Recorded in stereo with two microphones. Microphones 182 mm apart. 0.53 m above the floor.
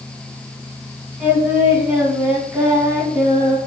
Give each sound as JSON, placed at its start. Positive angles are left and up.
{"t": 1.2, "sound": "singing", "side_deg": -10, "distance_m": 3.5}